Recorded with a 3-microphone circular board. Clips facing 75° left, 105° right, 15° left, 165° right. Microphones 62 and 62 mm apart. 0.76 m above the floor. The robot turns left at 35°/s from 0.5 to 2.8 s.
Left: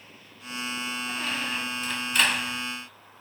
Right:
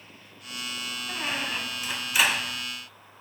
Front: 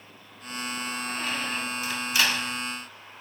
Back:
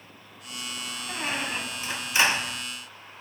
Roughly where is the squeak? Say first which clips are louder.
Right 2 dB, back 3 dB; behind right.